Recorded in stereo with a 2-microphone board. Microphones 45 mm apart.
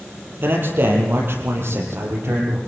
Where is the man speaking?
50° right (ahead or behind), 8 m; by 2.6 s 60° right (ahead or behind), 10.5 m.